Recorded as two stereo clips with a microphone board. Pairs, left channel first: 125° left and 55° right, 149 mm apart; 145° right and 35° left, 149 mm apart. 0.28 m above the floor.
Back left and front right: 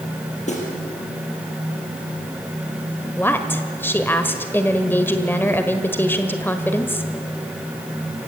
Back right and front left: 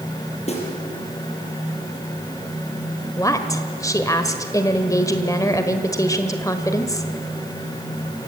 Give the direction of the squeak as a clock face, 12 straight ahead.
I don't hear a squeak.